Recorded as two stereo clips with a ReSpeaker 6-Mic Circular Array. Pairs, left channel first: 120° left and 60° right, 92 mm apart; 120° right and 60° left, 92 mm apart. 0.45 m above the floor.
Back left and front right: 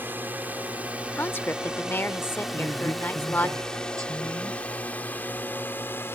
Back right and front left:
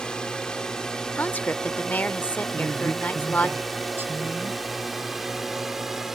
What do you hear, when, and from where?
0.0 s a drone: 55° right; by 6.1 s 145° left
1.1 s a woman speaking: 175° left
2.5 s a woman speaking: 5° right